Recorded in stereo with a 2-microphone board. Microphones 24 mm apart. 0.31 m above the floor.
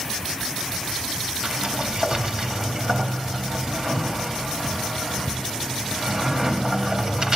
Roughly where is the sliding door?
Right.